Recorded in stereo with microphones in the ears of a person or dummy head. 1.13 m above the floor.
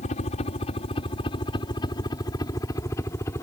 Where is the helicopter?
35° left (ahead or behind); by 3.4 s 10° left (ahead or behind).